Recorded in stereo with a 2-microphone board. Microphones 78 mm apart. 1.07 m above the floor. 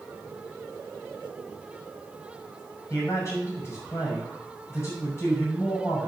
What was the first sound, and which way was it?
A man speaking, 35° left (ahead or behind).